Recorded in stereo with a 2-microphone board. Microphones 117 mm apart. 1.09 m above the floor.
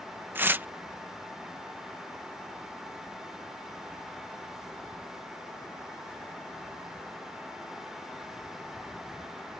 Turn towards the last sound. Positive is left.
turn(degrees=-15)  # may be behind; listen again after turning